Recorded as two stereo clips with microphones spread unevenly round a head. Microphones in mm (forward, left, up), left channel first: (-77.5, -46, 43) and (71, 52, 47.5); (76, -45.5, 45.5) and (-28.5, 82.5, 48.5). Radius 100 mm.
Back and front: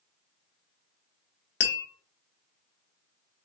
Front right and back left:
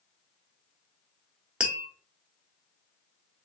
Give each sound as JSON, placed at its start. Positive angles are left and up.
{"t": 1.6, "sound": "tapping", "azimuth_deg": -145, "distance_m": 0.8}